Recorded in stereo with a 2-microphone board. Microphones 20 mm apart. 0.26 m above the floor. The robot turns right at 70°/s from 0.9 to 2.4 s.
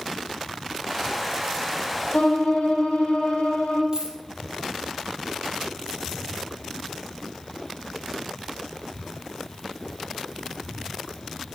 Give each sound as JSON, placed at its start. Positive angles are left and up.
{"t": 2.1, "sound": "a violin", "side_deg": 80, "distance_m": 3.0}
{"t": 3.9, "sound": "a dropped coin", "side_deg": -45, "distance_m": 2.5}